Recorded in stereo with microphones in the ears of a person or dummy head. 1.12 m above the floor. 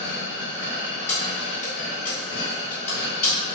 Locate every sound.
0.0 s a machine running: 65° left (ahead or behind), 0.9 m
1.1 s keys jangling: 15° left (ahead or behind), 1.5 m